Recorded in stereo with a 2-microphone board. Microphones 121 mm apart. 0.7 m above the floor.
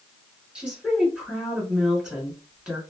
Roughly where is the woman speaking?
Centre.